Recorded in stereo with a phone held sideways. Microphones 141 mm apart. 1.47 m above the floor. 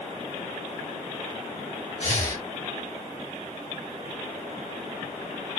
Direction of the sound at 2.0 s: 50° left (ahead or behind).